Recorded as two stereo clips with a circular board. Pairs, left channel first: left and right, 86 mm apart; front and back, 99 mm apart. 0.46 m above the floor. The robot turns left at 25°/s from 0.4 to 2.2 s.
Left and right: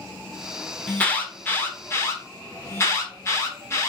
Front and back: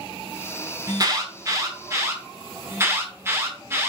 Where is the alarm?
160° left, 0.9 m; by 3.9 s 130° left, 0.9 m.